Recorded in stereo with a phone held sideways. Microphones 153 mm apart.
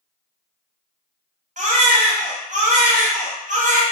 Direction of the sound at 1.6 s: 55° right (ahead or behind).